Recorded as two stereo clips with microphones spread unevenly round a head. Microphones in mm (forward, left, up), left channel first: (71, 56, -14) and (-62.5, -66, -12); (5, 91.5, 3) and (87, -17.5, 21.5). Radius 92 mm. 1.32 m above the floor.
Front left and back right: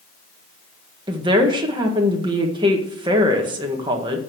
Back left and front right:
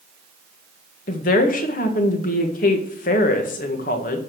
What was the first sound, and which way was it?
A woman speaking, 155° left.